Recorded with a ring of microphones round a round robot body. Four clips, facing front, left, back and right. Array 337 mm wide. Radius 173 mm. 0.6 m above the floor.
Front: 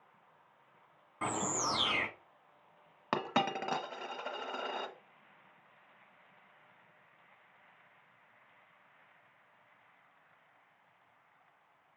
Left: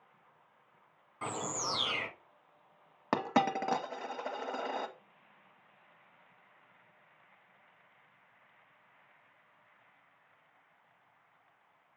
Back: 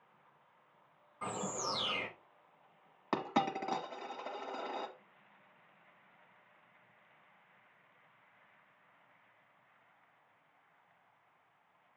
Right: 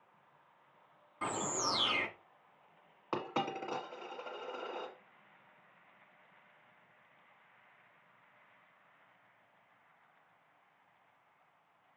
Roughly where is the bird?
Ahead.